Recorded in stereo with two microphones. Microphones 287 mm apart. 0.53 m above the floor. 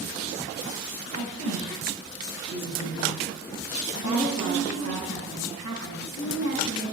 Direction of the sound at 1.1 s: 70° left (ahead or behind).